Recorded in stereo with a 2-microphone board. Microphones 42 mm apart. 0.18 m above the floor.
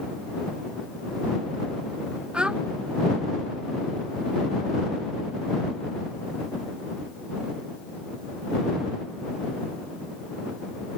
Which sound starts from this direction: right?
A child speaking, at 2.3 s.